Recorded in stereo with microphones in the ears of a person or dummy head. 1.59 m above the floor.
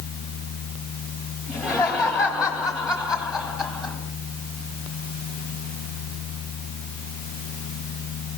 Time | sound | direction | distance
1.5 | laughter | 5° right (ahead or behind) | 7.5 m